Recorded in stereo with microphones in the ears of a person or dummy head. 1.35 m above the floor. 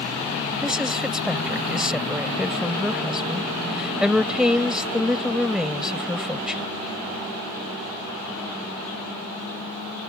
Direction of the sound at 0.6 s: Centre (ahead or behind).